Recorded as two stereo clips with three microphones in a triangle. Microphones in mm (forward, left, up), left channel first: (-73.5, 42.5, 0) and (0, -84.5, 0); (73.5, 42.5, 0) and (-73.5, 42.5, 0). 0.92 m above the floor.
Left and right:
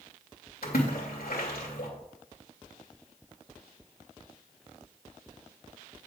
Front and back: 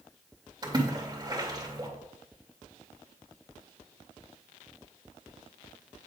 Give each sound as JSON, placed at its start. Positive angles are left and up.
{"t": 0.6, "sound": "a splash", "azimuth_deg": 120, "distance_m": 2.5}